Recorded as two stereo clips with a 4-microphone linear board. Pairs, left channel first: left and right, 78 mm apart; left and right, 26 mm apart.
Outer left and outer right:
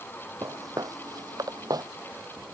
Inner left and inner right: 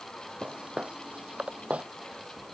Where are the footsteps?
45° right (ahead or behind); by 1.9 s 55° right (ahead or behind).